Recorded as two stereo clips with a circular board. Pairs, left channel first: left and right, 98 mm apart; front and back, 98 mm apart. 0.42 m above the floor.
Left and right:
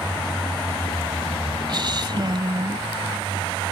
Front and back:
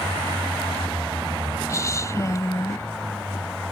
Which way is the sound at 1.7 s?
55° right.